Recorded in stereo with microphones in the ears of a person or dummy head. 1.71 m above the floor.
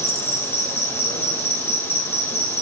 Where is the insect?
15° left (ahead or behind), 1.4 m.